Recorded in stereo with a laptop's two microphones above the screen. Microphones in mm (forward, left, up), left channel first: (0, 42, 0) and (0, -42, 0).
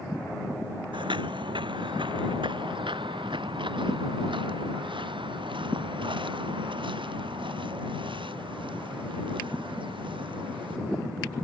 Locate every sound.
0.9 s footsteps: 70° right (ahead or behind); by 10.8 s 80° right